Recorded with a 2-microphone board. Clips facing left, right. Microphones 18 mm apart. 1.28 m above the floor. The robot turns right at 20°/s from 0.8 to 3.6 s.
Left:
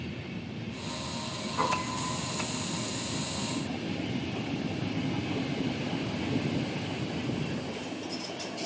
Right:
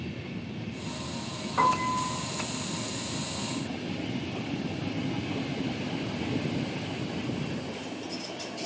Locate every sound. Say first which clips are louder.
1.6 s a piano: right 6 dB; 50° right (ahead or behind), 4 m; by 2.2 s 60° right (ahead or behind), 4 m